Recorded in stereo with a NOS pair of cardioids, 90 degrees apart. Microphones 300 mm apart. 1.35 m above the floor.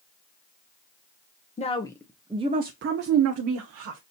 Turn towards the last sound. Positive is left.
turn(degrees=-75)